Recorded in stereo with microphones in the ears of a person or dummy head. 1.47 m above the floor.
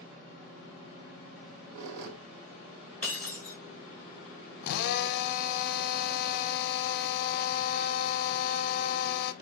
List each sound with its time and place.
1.4 s a squeak: 80° right, 1.8 m
3.0 s breaking glass: 10° left (ahead or behind), 4.5 m
4.6 s a drill: 60° left (ahead or behind), 0.8 m